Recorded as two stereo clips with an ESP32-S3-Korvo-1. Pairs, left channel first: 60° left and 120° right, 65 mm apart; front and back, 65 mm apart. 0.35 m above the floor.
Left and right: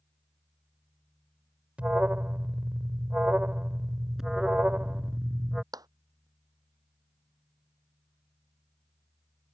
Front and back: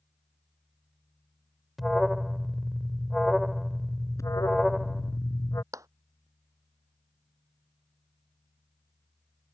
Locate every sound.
1.8 s an alarm: 85° right
4.2 s an alarm: 35° right
5.7 s a clap: 145° right